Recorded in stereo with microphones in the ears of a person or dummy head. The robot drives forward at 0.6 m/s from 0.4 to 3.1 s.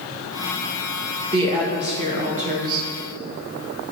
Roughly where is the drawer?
No drawer in this recording.